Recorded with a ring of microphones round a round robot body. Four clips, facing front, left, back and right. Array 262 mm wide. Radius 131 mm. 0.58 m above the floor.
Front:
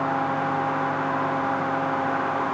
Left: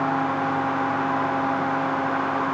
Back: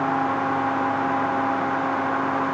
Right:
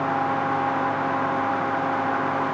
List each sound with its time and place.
Only background noise.